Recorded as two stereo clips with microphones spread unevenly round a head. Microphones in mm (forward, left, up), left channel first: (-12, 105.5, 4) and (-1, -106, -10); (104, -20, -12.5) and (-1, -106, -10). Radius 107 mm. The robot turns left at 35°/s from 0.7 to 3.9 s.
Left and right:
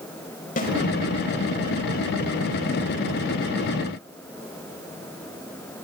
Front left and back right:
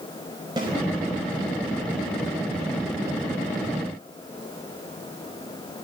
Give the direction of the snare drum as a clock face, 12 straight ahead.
7 o'clock.